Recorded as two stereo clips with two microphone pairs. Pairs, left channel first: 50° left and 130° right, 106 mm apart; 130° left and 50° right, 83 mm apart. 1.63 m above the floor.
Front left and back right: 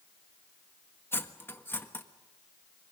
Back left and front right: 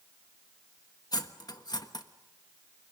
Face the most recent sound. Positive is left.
turn(degrees=115)